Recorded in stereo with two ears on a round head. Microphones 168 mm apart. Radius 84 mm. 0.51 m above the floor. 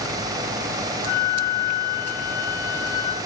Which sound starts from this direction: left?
A flute, at 1.1 s.